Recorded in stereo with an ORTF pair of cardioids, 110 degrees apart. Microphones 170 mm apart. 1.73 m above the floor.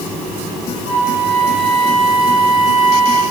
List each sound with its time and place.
0.8 s a flute: 30° left, 8 m